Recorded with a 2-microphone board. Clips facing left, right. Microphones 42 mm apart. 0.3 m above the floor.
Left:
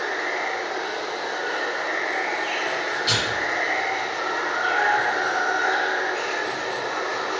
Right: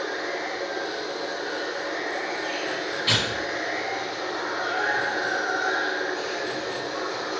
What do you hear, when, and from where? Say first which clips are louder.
0.0 s running water: left 4 dB; 65° left (ahead or behind), 1.2 m
3.1 s tearing paper: even; 25° right (ahead or behind), 2.5 m